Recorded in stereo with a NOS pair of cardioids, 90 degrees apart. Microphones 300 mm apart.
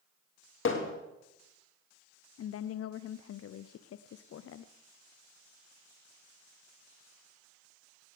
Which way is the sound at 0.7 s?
45° left.